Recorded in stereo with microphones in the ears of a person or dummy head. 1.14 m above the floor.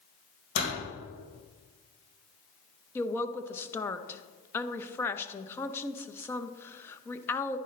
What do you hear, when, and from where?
0.6 s a door slam: 75° left (ahead or behind), 4 m
3.0 s a woman speaking: 10° left (ahead or behind), 0.8 m